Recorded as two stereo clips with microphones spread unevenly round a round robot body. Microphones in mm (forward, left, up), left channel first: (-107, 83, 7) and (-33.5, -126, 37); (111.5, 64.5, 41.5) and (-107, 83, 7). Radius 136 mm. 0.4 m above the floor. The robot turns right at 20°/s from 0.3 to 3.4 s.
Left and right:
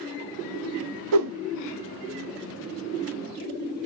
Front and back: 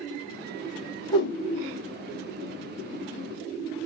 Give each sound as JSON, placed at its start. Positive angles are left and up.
{"t": 1.1, "sound": "a whoosh", "azimuth_deg": -80, "distance_m": 0.6}